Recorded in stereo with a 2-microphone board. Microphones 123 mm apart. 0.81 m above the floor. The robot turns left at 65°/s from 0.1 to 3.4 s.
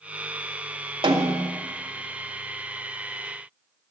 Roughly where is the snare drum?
Behind right.